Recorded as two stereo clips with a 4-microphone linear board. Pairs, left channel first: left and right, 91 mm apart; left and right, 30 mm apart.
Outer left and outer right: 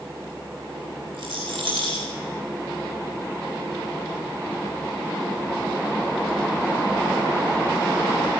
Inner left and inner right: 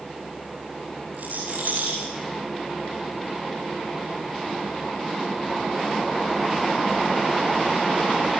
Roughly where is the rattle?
Right.